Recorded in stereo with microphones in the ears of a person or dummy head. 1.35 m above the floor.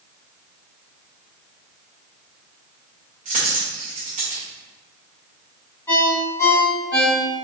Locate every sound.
3.2 s a dropped coin: 35° right (ahead or behind), 1.5 m
5.9 s a ringtone: 10° left (ahead or behind), 1.9 m